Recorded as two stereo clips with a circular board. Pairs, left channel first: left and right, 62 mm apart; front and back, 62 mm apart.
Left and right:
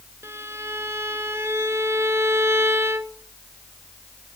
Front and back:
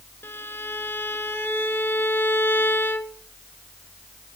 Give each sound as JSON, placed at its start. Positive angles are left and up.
{"t": 0.2, "sound": "a violin", "azimuth_deg": -50, "distance_m": 1.1}